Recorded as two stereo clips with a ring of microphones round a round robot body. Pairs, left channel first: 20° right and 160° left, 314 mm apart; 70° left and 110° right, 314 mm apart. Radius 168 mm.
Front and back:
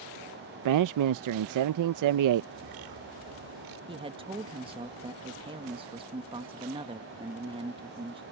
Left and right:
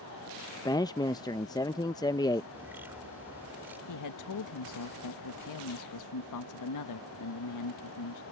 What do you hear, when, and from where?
0.7 s a man speaking: 145° left
2.5 s a bird: 165° left
3.9 s a man speaking: 85° left